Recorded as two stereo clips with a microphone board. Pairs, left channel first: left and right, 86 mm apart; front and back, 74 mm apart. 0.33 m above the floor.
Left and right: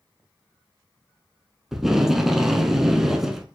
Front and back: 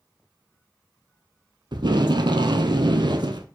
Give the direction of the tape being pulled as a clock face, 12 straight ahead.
6 o'clock.